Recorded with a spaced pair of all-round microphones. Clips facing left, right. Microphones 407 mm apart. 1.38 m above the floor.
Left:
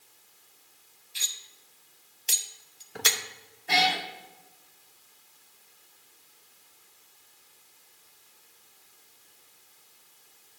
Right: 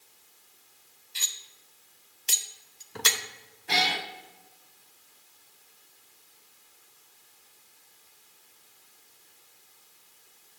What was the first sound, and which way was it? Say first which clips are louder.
Cutlery clinking: even; 10° right (ahead or behind).